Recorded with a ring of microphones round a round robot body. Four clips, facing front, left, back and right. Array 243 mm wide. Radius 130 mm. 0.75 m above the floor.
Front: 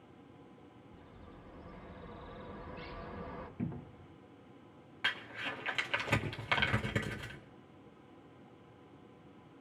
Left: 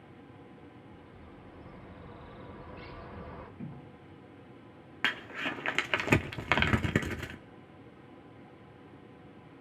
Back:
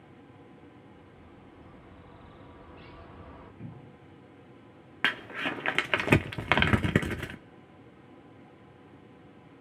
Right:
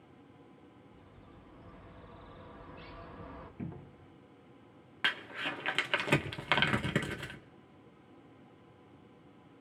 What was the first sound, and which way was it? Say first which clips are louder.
A bird: left 5 dB, back 2 dB; 50° left.